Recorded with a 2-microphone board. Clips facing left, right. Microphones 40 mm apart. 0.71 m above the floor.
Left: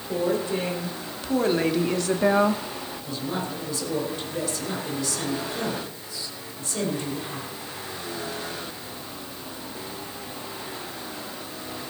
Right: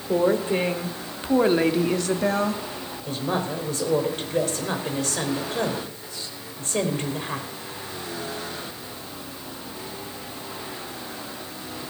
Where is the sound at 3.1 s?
50° right (ahead or behind), 2.5 m.